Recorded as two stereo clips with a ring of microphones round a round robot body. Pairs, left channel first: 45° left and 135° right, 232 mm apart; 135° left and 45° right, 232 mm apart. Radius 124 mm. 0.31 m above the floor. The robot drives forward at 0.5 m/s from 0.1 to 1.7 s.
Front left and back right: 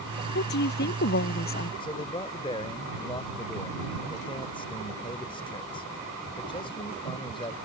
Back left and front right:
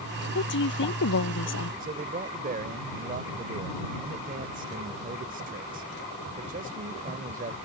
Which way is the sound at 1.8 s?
15° right.